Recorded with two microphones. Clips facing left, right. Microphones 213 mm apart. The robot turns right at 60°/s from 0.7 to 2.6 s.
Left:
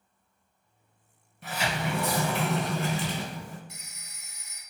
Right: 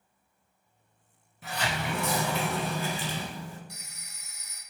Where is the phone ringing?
25° left (ahead or behind), 0.5 m.